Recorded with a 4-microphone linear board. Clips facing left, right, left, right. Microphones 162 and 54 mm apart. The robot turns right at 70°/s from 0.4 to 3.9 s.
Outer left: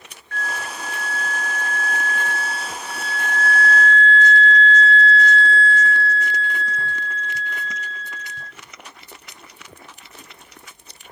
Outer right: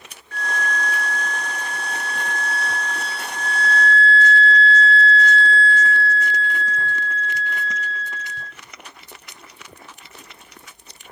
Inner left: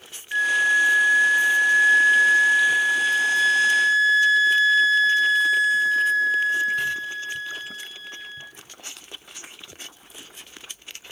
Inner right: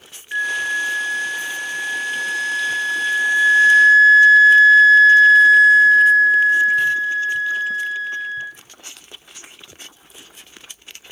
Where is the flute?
10° right, 0.7 m; by 8.5 s 125° right, 0.7 m.